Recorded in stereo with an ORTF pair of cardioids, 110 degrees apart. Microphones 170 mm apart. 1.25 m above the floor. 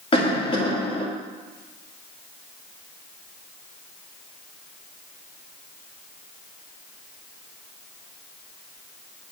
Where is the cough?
30° left, 2 m.